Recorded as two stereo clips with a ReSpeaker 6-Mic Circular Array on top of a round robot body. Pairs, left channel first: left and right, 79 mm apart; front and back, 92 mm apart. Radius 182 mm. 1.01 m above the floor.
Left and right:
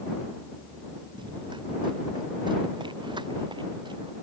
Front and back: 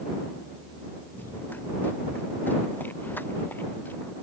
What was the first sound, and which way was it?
Running footsteps, 70° right.